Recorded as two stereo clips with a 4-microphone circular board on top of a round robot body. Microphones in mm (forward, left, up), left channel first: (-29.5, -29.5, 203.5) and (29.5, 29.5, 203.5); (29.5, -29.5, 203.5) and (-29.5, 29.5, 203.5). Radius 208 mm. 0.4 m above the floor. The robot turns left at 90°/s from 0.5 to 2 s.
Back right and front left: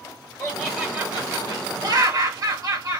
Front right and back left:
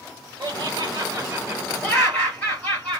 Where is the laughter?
160° left, 2.0 m; by 3.0 s 25° left, 2.0 m.